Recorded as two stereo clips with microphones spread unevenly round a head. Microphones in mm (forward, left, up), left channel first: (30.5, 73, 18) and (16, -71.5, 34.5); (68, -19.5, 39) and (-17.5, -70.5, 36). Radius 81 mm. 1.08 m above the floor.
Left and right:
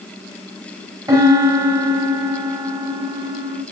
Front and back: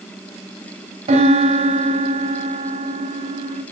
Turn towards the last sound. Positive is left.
turn(degrees=-165)